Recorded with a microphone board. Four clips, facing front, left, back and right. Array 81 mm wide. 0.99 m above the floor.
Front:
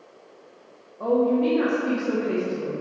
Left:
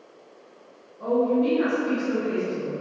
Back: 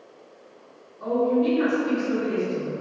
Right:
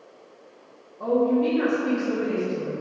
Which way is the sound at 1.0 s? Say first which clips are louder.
Right 1 dB, front 1 dB; 15° right.